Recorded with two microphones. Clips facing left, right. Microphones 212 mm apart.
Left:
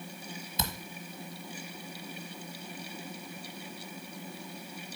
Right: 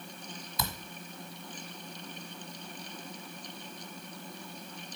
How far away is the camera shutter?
About 1.4 m.